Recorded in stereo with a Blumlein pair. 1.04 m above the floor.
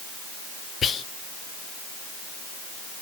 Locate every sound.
0.8 s whispering: 20° left, 0.6 m